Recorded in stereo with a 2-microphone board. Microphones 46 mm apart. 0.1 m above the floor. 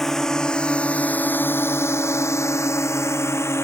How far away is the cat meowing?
I don't hear a cat meowing.